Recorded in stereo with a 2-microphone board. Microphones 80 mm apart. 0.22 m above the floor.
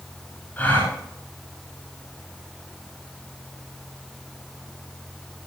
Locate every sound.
0.6 s a gasp: 20° left (ahead or behind), 9 m